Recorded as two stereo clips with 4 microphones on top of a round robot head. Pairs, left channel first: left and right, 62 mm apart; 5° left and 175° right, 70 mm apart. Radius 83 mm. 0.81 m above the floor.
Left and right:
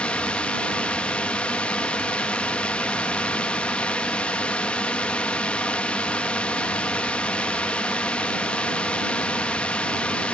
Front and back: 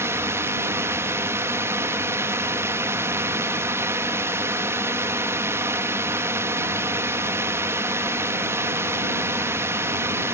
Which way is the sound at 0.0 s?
155° left.